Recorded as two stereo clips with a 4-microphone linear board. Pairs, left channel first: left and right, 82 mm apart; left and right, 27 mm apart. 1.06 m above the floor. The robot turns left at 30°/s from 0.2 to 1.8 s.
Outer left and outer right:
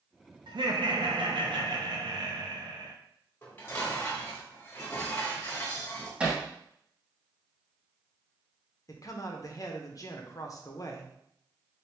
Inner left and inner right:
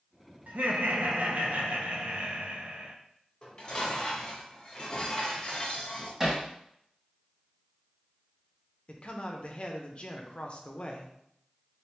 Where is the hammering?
15° right (ahead or behind), 0.9 m.